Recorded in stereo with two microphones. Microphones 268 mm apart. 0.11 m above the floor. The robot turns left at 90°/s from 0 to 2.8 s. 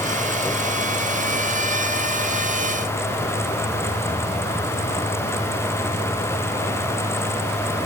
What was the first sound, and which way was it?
Only background noise.